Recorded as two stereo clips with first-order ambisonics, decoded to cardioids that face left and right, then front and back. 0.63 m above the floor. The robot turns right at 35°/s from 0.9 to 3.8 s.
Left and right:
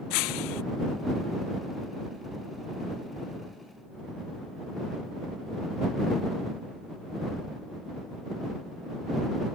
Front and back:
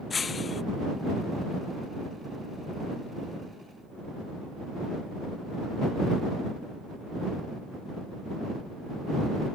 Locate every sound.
0.1 s breaking glass: 70° left